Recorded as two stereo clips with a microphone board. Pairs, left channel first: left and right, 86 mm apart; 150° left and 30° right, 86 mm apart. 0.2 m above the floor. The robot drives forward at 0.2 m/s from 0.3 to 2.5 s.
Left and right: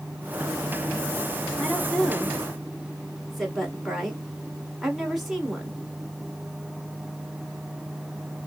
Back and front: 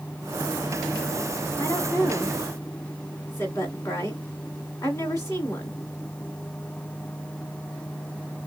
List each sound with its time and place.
1.6 s a woman speaking: 175° right, 1.3 m